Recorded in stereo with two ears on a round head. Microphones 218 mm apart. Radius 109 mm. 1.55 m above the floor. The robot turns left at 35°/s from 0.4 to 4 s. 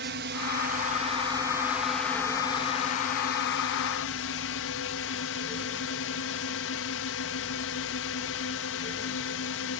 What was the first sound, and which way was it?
A drone, 125° right.